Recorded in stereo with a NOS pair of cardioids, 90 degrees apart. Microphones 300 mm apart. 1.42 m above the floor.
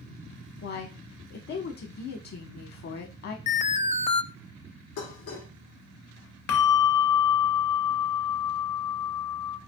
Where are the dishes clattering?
70° left, 2.0 m.